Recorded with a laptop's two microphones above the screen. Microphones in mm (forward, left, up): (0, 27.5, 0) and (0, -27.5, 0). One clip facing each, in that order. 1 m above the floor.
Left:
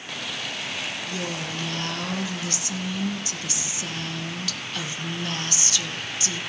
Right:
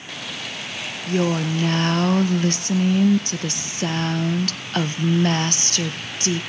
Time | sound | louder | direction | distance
1.1 | a woman speaking | right 9 dB | 50° right (ahead or behind) | 0.9 m